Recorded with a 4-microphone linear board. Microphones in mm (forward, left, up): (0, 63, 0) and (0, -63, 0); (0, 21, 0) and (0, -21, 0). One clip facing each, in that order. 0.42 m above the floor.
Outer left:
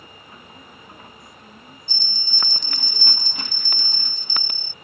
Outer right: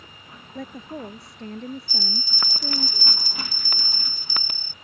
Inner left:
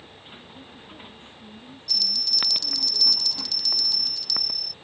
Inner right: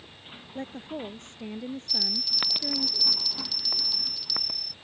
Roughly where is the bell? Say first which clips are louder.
Outer right 7 dB, inner left 2 dB; centre.